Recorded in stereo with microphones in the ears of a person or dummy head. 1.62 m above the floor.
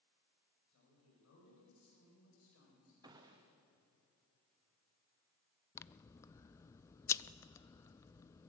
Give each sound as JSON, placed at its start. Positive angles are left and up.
{"t": 0.7, "sound": "a woman speaking", "side_deg": 75, "distance_m": 9.0}
{"t": 3.0, "sound": "a gunshot", "side_deg": -20, "distance_m": 1.3}
{"t": 5.8, "sound": "scissors", "side_deg": 20, "distance_m": 0.6}